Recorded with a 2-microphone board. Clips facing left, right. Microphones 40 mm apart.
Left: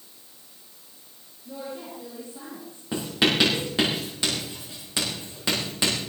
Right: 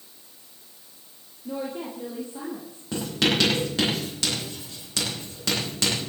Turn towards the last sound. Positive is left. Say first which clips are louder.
# left 1 dB
turn(degrees=15)  # may be behind; listen again after turning